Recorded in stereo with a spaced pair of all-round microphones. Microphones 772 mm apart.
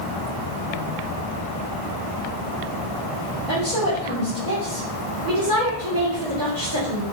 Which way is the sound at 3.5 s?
70° right (ahead or behind).